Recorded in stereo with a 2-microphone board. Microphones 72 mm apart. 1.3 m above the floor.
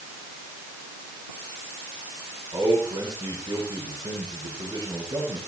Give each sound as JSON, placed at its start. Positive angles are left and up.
{"t": 2.5, "sound": "a man speaking", "side_deg": -75, "distance_m": 8.0}